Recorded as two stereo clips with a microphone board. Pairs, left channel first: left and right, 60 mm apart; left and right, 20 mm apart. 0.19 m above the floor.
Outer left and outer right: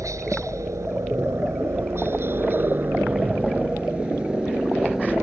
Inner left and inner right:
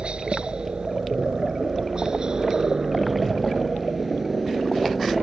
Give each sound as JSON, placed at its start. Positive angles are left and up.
{"t": 0.0, "sound": "a helicopter", "side_deg": -60}